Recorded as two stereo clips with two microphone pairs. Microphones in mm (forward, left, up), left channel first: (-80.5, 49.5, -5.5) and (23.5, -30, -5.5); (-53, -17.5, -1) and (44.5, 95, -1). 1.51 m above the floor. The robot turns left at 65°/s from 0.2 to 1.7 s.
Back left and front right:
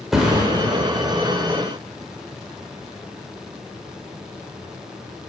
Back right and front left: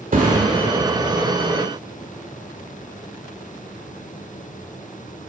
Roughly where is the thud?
Ahead left.